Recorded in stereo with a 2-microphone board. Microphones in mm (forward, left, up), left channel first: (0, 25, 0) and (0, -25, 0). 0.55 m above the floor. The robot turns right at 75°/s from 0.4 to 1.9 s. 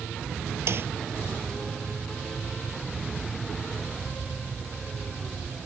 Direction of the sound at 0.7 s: 60° right (ahead or behind).